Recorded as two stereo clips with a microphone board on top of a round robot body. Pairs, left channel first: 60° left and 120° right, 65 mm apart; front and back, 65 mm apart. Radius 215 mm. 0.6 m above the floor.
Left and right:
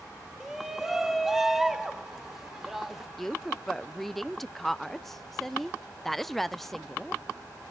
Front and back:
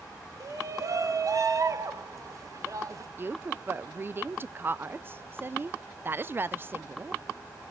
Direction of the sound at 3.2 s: 145° left.